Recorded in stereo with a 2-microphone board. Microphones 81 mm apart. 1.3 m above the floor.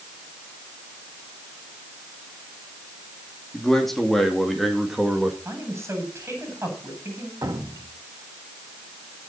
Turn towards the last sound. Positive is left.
turn(degrees=-45)  # may be behind; listen again after turning